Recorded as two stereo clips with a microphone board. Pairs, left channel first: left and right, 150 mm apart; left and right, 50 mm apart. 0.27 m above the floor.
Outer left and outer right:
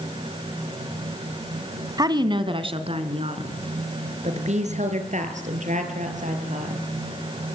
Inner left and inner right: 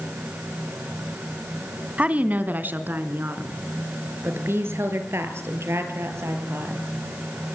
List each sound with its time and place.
2.0 s a woman speaking: 25° right (ahead or behind), 2 m; by 6.8 s 55° right (ahead or behind), 7 m